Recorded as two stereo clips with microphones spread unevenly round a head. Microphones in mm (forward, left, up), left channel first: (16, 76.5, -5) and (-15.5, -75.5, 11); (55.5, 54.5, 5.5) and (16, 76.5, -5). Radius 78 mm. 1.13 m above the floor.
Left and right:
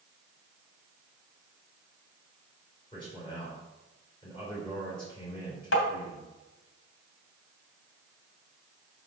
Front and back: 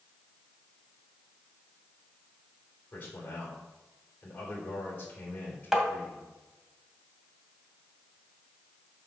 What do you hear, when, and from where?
2.9 s a man speaking: 15° left, 3 m
5.7 s tapping: 65° left, 2.5 m